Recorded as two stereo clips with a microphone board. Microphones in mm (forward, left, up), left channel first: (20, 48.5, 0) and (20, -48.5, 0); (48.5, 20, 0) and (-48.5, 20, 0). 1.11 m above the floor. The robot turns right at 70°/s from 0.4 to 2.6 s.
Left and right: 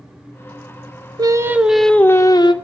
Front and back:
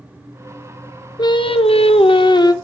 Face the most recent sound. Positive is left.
turn(degrees=55)